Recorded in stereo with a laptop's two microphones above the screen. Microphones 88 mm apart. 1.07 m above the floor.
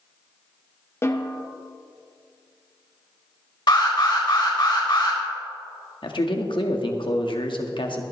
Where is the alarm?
60° left (ahead or behind), 2.5 m.